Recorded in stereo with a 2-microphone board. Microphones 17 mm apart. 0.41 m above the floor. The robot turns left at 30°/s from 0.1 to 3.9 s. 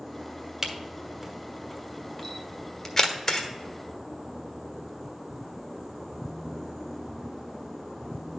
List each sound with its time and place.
0.6 s a camera shutter: 20° right (ahead or behind), 1.5 m; by 3.5 s 35° left (ahead or behind), 1.5 m